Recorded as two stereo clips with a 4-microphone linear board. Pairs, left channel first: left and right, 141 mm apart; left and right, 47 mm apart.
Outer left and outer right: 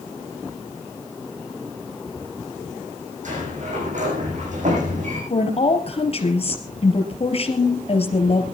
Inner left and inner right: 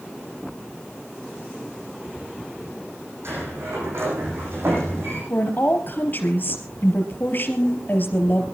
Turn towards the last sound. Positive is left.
turn(degrees=45)  # may be behind; listen again after turning